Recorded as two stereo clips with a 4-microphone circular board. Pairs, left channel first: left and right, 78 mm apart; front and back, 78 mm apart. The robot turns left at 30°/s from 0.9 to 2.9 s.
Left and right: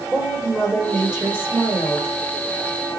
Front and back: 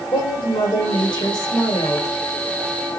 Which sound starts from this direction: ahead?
A woman speaking, at 0.1 s.